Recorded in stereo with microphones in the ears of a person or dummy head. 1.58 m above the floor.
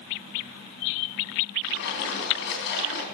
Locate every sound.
1.6 s a splash: 60° left (ahead or behind), 3 m